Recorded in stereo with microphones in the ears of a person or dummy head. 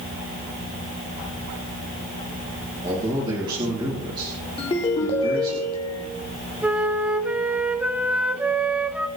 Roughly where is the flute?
Centre.